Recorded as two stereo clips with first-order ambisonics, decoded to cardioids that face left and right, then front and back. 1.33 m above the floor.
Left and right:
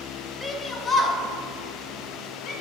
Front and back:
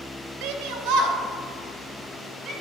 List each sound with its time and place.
0.4 s a shout: straight behind, 1.2 m; by 2.5 s 140° left, 4 m